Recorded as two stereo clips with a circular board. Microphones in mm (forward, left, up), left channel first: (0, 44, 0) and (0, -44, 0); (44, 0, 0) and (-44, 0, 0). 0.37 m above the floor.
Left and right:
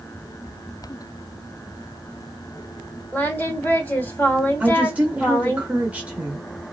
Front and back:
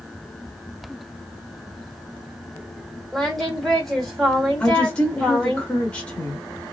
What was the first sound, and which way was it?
Singing, 85° left.